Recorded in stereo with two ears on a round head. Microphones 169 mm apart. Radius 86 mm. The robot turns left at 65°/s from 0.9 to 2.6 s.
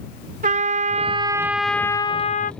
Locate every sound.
0.4 s a trumpet: 130° right; by 2.5 s 125° left